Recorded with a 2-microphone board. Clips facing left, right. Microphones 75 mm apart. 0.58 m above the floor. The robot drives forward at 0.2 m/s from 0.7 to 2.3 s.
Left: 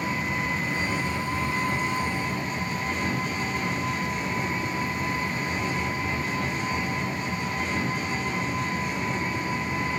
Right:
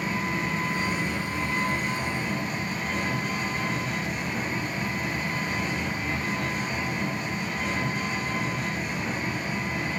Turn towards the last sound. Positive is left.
turn(degrees=-45)  # may be behind; listen again after turning